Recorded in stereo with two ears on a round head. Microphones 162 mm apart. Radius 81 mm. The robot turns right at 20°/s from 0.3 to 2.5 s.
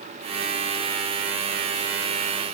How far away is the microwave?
I don't hear a microwave.